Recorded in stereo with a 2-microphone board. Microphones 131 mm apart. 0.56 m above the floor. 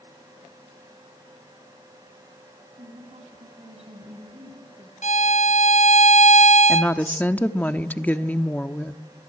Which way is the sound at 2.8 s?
60° right (ahead or behind).